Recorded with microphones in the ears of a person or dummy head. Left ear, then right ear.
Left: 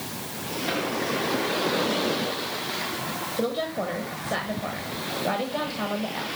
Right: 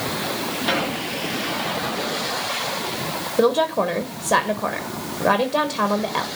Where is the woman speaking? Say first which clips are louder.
Right 11 dB; 55° right (ahead or behind), 1.1 m.